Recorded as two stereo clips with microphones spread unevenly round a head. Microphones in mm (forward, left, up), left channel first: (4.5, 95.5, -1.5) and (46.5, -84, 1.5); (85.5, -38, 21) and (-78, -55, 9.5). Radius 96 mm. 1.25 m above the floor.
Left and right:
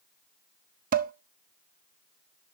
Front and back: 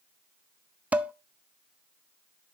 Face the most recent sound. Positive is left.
turn(degrees=-90)